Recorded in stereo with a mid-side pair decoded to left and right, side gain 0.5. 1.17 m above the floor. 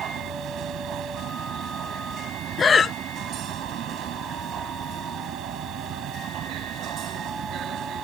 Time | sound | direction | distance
0.0 | a machine running | 65° right | ?
2.6 | breathing | 35° left | ?